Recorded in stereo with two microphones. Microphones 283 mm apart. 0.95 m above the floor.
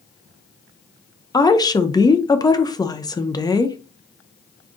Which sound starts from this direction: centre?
A woman speaking, at 1.3 s.